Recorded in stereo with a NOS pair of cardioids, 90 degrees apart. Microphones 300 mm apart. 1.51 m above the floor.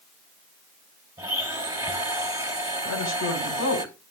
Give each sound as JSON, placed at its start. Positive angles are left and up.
{"t": 1.2, "sound": "a blender", "azimuth_deg": -10, "distance_m": 3.0}
{"t": 2.9, "sound": "a woman speaking", "azimuth_deg": 60, "distance_m": 4.0}